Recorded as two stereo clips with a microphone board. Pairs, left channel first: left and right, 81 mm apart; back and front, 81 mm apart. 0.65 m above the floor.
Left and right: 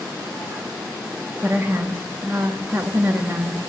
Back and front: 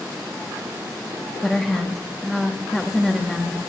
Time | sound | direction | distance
1.4 | a woman speaking | 100° right | 1.2 m